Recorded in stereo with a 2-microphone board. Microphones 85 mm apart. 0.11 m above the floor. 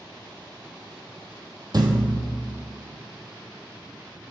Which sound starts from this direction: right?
A thud, at 1.7 s.